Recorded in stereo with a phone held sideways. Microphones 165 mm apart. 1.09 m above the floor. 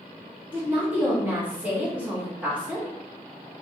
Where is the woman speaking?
10° right (ahead or behind), 2 m.